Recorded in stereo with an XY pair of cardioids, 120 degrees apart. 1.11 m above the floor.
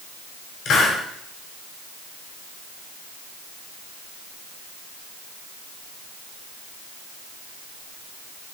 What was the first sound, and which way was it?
A hiss, 60° left.